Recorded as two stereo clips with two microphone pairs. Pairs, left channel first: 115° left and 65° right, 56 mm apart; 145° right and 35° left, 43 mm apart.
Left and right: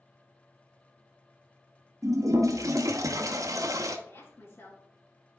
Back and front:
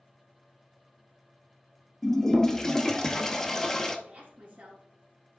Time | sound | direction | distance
2.0 | a toilet flushing | 70° right | 0.8 m
4.1 | a woman speaking | 80° left | 2.5 m